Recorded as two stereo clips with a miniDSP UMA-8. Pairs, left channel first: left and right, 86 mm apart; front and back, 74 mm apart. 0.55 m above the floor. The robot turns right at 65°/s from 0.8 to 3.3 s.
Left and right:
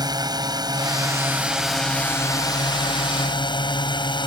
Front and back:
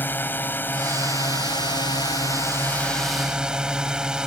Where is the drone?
60° right; by 4.3 s 105° left.